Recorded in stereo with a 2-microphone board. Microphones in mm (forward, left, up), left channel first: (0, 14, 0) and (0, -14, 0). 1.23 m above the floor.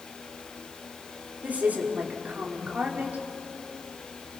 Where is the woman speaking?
75° right (ahead or behind), 3.5 m.